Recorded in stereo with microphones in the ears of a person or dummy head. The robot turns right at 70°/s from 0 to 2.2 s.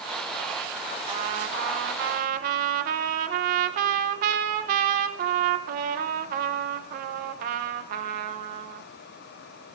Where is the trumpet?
145° right, 0.6 m; by 8.9 s 65° right, 0.6 m.